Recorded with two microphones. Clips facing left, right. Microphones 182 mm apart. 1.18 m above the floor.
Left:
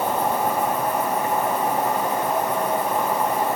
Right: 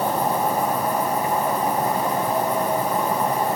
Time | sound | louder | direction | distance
0.0 | an insect | even | 15° right (ahead or behind) | 2 m